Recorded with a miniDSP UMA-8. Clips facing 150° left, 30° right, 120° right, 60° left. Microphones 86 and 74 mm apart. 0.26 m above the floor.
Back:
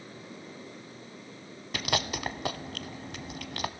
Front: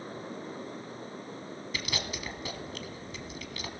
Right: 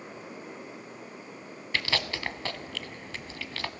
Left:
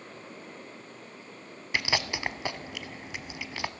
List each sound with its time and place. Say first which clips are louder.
1.7 s chewing: back 7 dB, left 1 dB; 135° left, 0.8 m